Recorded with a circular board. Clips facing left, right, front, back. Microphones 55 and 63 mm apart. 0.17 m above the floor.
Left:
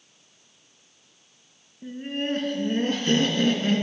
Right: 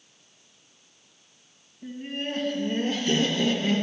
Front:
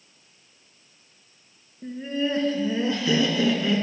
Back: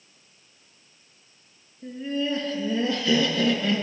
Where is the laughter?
40° left, 2.5 m; by 3.8 s 80° left, 2.5 m.